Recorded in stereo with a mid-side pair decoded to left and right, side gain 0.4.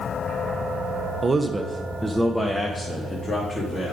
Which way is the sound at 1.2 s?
30° right.